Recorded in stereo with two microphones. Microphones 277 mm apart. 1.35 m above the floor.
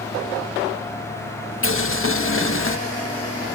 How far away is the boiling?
About 0.9 m.